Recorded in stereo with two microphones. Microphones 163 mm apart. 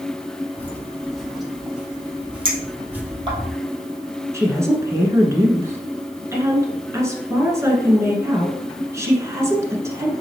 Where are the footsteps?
10° left (ahead or behind), 0.6 m; by 3.5 s 10° right (ahead or behind), 2 m.